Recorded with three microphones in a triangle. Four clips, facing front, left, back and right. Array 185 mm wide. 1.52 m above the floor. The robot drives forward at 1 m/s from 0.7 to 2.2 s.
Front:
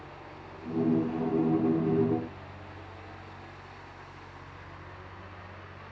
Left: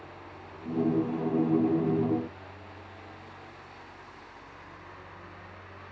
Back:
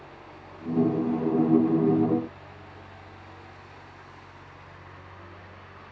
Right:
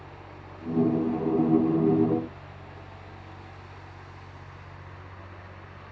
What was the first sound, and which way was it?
Only background noise.